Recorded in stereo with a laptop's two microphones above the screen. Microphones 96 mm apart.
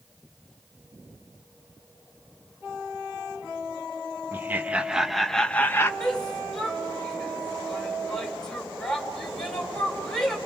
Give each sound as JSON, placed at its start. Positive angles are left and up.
{"t": 4.3, "sound": "laughter", "side_deg": -25, "distance_m": 1.4}
{"t": 6.0, "sound": "a shout", "side_deg": 5, "distance_m": 3.5}